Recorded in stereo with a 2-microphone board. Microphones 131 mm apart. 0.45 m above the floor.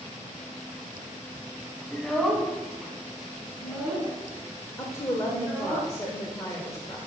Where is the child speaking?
5° left (ahead or behind), 2 m; by 5.8 s 15° right (ahead or behind), 4 m.